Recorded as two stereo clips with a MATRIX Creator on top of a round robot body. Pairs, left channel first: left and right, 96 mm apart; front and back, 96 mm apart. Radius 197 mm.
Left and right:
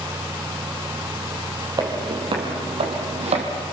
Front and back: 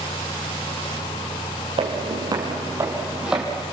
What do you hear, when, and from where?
1.8 s footsteps: 140° right, 3 m; by 3.4 s 95° right, 3 m